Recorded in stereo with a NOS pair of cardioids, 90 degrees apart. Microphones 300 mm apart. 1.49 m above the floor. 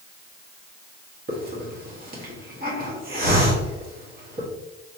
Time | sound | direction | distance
1.3 | a hiss | 30° right | 1.4 m